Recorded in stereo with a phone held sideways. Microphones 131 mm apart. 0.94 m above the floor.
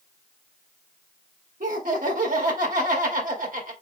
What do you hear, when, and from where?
1.6 s laughter: 80° right, 1.9 m